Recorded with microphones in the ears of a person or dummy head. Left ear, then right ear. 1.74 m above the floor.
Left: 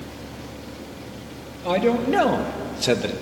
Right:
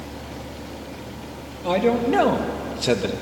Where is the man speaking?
5° left (ahead or behind), 2.5 m; by 3.1 s 10° left (ahead or behind), 1.3 m.